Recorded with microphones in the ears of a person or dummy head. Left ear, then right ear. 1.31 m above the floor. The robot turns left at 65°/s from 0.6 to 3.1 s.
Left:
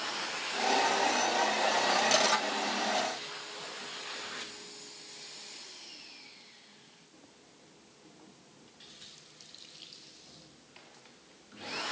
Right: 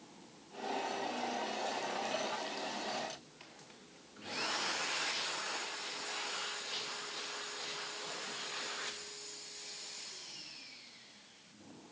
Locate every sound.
Only background noise.